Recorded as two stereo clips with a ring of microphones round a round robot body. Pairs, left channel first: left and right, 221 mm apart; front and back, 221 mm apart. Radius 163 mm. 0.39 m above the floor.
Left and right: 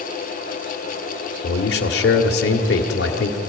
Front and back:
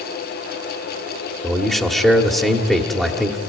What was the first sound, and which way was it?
A man speaking, 85° left.